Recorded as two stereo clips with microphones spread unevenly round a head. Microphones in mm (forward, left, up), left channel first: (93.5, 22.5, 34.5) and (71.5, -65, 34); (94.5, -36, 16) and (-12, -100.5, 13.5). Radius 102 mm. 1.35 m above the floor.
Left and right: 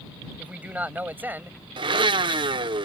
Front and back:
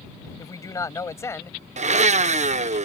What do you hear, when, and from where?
0.4 s a man speaking: 30° right; by 1.6 s 40° right
1.8 s a blender: 135° right